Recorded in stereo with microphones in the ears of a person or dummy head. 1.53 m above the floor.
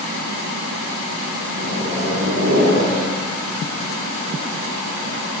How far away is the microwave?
About 9 m.